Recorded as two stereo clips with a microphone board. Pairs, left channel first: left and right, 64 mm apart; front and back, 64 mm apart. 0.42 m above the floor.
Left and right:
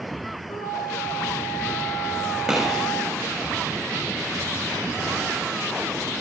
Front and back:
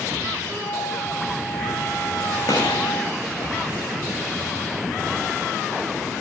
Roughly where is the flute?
Left.